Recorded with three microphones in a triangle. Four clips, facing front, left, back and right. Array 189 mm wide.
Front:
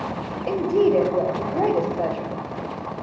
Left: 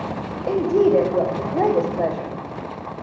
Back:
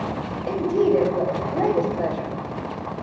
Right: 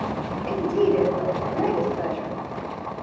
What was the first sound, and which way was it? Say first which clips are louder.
A woman speaking: left 4 dB, front 1 dB; 75° left.